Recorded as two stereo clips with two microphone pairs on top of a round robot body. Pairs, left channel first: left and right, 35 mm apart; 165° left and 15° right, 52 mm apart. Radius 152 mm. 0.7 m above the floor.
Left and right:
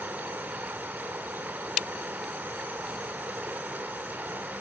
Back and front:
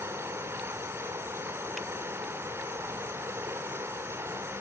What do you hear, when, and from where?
0.0 s running water: 55° right, 1.9 m